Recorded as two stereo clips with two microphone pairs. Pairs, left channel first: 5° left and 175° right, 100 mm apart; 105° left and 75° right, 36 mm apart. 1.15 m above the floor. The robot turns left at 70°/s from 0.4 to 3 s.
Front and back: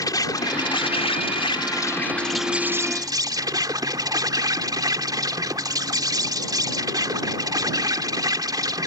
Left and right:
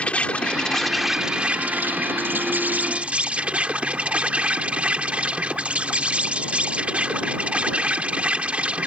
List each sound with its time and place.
0.0 s an insect: 55° left; by 8.9 s 125° right